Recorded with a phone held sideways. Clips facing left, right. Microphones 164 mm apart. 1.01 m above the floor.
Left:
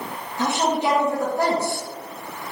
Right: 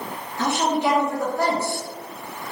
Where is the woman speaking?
20° left (ahead or behind), 0.8 m.